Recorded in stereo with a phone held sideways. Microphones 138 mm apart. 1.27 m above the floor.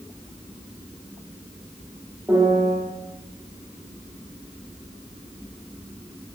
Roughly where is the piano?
Centre.